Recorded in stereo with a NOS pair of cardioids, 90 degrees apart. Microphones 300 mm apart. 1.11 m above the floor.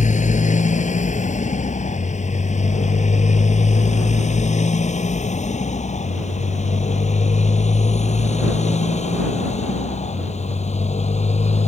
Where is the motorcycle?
25° left; by 11.7 s 20° left.